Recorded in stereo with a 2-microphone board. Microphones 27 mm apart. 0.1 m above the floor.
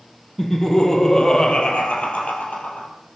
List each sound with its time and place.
0.4 s laughter: 10° left (ahead or behind), 3 m; by 2.9 s 65° left (ahead or behind), 3 m